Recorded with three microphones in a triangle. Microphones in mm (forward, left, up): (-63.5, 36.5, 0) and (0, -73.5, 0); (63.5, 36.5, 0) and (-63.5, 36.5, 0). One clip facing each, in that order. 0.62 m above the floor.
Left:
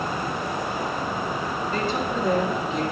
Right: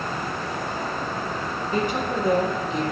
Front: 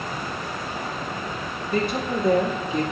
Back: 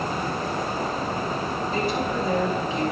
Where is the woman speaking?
10° left, 1.6 m; by 2.8 s 30° left, 1.6 m.